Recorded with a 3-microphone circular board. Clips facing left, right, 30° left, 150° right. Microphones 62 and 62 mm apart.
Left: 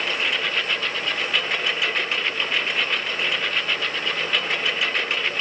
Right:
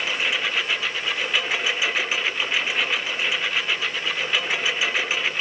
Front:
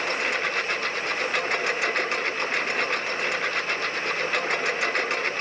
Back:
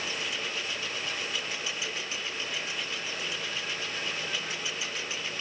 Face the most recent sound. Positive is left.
turn(degrees=-5)